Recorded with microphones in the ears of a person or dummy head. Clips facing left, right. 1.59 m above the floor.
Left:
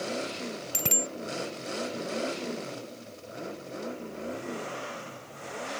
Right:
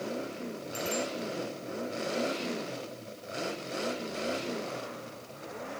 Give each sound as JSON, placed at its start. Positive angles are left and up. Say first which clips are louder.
{"t": 0.7, "sound": "a bicycle bell", "louder": "right 3 dB", "side_deg": 75}